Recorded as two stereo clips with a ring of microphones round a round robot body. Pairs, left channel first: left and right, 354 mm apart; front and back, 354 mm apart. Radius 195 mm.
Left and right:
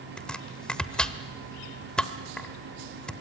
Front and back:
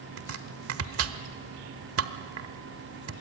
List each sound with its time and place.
0.2 s chopping: 175° left, 1.2 m